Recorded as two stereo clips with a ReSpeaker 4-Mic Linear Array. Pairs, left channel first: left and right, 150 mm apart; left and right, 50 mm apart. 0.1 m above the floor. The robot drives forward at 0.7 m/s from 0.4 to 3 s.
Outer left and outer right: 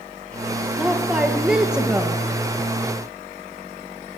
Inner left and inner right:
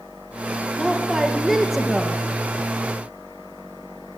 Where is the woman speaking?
5° right (ahead or behind), 2 m.